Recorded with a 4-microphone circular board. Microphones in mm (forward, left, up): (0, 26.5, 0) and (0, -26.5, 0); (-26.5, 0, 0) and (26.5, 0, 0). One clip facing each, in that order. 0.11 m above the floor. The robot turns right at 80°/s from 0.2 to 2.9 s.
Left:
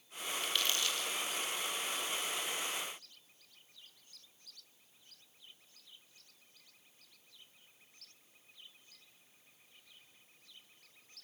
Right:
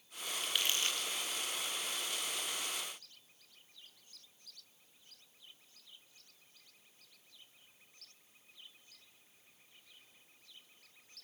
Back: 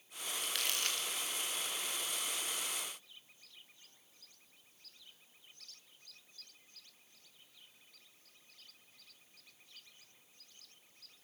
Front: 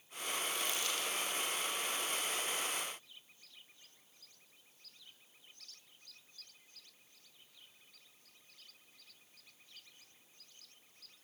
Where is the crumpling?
Straight behind, 4.5 m; by 1.1 s 125° right, 4.5 m.